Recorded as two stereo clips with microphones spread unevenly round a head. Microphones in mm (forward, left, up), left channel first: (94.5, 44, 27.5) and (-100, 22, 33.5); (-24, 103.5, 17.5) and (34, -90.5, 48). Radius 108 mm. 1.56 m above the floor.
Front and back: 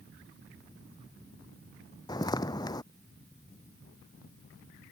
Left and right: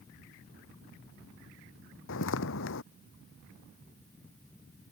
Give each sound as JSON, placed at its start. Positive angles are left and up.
{"t": 2.1, "sound": "footsteps", "azimuth_deg": 75}